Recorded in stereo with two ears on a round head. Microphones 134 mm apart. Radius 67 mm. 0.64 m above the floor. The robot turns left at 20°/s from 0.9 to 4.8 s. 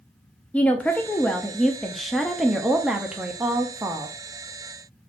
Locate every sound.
0.5 s a woman speaking: 10° left (ahead or behind), 0.5 m; by 4.2 s 15° right (ahead or behind), 0.5 m